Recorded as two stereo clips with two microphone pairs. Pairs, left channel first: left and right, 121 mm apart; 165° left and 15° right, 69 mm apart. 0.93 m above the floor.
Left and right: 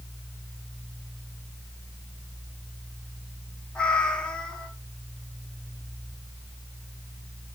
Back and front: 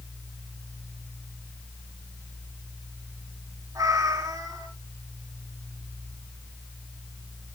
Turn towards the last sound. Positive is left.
turn(degrees=5)